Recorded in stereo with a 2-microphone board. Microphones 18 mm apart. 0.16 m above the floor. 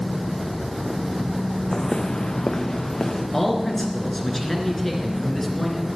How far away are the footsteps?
About 0.7 m.